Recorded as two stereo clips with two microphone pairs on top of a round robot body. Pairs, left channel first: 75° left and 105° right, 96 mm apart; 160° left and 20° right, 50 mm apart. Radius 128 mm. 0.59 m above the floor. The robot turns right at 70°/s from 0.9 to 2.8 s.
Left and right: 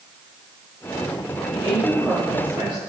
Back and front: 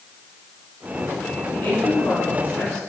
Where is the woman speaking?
120° left, 7.5 m; by 2.8 s 150° right, 7.5 m.